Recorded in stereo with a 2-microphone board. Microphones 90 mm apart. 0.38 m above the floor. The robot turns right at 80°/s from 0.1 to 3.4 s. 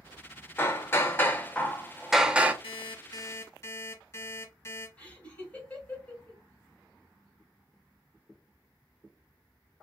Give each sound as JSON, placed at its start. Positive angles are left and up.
{"t": 0.6, "sound": "hammering", "side_deg": 25, "distance_m": 0.6}
{"t": 2.6, "sound": "an alarm clock", "azimuth_deg": 85, "distance_m": 1.8}
{"t": 5.0, "sound": "laughter", "side_deg": 15, "distance_m": 1.8}